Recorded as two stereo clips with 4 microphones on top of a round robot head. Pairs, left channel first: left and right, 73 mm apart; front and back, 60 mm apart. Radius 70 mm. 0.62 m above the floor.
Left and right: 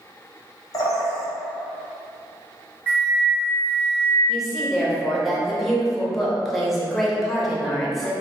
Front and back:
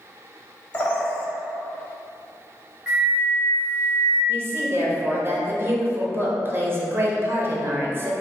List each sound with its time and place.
0.7 s a bird: 60° left, 0.5 m
2.9 s a flute: 130° right, 1.1 m
4.3 s a woman speaking: straight behind, 0.7 m